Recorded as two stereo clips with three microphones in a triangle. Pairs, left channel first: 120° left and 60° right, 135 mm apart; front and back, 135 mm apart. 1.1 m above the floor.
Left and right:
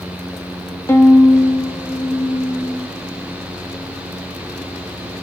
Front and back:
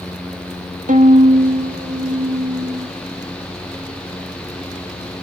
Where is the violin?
170° right, 1.8 m.